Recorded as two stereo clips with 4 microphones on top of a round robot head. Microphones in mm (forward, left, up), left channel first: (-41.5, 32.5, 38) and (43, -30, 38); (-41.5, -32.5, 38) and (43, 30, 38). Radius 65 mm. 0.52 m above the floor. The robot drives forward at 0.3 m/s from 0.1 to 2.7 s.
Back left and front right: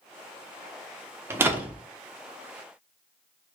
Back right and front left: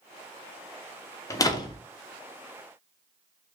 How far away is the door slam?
About 0.5 m.